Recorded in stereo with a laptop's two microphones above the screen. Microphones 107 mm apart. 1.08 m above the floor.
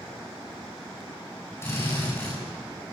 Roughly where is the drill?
Left.